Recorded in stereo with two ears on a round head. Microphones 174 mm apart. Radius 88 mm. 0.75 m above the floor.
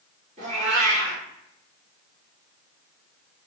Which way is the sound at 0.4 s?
40° right (ahead or behind).